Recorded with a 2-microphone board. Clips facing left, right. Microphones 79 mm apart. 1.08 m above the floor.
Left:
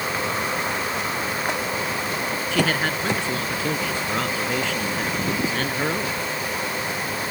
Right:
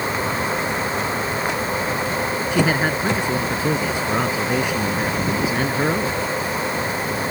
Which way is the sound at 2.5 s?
15° right (ahead or behind).